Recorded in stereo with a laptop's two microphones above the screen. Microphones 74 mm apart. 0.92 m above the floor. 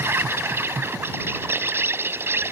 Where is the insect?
35° right (ahead or behind).